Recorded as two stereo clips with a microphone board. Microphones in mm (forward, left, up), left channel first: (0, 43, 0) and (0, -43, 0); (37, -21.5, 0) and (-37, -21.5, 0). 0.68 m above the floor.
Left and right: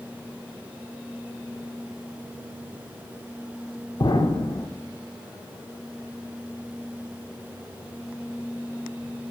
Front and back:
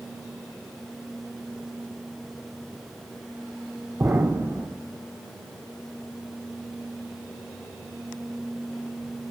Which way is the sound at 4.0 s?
125° left.